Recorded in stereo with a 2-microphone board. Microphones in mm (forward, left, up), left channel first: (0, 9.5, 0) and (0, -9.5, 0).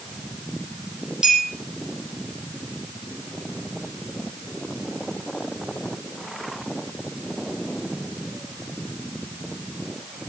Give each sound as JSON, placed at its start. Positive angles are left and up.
{"t": 1.2, "sound": "a clink", "side_deg": -45, "distance_m": 5.0}